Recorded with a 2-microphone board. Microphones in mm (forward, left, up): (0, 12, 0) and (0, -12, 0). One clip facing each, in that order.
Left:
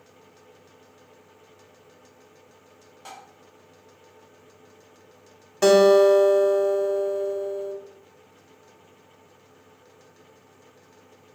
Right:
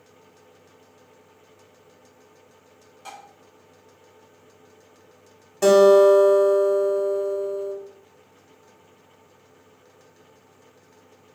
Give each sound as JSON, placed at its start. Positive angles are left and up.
{"t": 3.0, "sound": "tapping", "side_deg": 5, "distance_m": 1.6}
{"t": 5.6, "sound": "a guitar", "side_deg": 20, "distance_m": 0.6}